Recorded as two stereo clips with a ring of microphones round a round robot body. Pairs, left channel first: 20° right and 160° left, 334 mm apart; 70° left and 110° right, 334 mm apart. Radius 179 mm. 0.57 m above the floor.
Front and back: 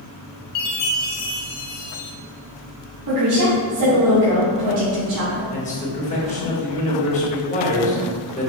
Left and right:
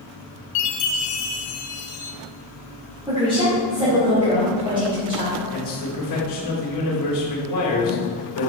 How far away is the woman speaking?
About 2 m.